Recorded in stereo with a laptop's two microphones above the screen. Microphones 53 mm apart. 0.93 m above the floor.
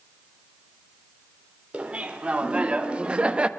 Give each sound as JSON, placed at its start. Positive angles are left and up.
{"t": 1.7, "sound": "laughter", "side_deg": -25, "distance_m": 3.5}